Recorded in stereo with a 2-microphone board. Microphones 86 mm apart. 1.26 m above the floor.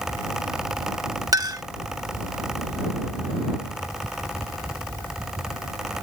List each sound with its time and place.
1.3 s a clink: 45° right (ahead or behind)